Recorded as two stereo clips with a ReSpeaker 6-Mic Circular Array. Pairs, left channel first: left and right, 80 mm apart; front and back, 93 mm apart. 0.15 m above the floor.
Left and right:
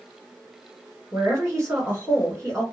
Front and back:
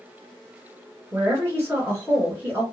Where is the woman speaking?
135° right, 1.7 m.